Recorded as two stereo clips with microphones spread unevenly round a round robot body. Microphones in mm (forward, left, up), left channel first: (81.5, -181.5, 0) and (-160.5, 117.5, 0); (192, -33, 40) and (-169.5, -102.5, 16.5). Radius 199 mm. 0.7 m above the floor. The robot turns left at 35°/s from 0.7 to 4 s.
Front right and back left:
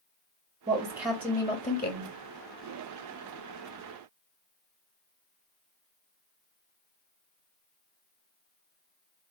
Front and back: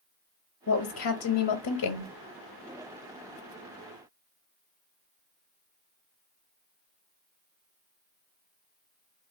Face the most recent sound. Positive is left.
turn(degrees=-60)